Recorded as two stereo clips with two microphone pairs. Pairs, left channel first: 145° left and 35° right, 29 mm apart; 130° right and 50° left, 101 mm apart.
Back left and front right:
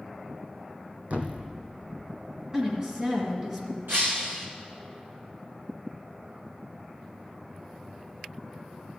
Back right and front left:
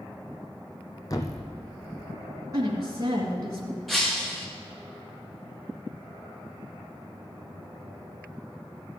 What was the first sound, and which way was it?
A thud, 70° right.